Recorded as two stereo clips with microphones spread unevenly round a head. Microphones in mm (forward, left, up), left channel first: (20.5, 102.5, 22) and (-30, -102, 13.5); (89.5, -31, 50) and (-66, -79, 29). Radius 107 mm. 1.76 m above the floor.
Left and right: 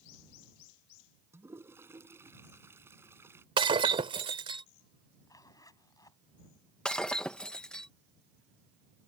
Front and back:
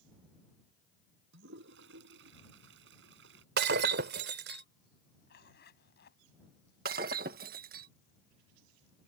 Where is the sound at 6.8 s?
160° left.